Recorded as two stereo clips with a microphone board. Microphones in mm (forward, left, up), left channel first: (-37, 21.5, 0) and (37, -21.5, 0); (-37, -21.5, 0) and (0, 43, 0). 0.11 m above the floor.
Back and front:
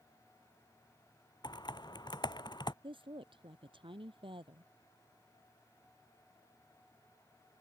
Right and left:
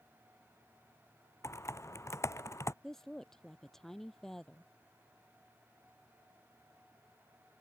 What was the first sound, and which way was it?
Typing on a keyboard, 175° right.